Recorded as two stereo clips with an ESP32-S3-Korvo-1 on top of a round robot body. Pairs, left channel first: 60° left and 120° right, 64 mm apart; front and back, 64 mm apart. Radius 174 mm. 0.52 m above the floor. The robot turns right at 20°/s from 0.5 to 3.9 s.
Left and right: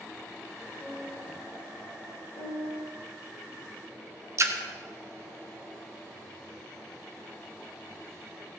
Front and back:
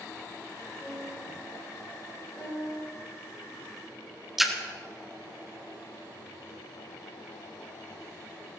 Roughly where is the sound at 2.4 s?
Ahead left.